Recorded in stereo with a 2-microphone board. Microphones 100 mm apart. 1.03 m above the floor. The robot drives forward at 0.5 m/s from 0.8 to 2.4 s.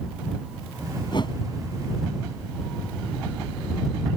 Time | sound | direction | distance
1.1 | a whoosh | 50° left (ahead or behind) | ?